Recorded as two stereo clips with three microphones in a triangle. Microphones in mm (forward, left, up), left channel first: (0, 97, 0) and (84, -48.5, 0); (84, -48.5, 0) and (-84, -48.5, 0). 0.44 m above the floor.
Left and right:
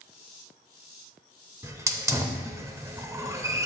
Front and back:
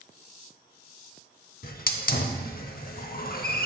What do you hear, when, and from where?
1.6 s a hiss: 10° left, 0.6 m